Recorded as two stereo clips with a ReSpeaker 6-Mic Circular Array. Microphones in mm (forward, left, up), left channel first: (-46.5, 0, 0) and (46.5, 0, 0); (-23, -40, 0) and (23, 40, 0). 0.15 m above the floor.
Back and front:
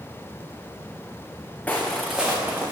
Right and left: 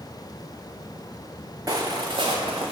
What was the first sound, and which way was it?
Footsteps, 105° left.